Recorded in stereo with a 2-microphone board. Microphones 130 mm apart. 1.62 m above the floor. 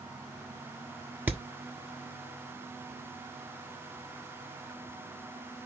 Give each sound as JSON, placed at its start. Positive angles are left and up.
{"t": 1.3, "sound": "hammering", "side_deg": -15, "distance_m": 1.4}